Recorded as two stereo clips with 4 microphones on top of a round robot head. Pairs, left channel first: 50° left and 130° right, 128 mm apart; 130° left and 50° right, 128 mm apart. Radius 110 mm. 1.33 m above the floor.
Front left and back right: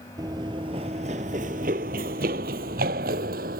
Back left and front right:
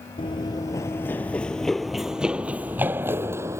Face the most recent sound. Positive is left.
turn(degrees=-120)